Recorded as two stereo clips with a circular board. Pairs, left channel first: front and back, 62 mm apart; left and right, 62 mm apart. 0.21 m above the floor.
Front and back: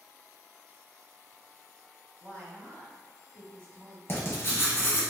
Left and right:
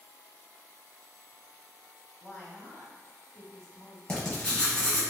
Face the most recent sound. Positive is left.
turn(degrees=15)